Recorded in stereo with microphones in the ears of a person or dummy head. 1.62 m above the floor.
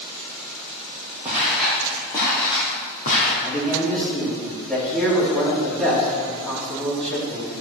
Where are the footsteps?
5° right (ahead or behind), 2.5 m; by 3.3 s 40° left (ahead or behind), 3 m.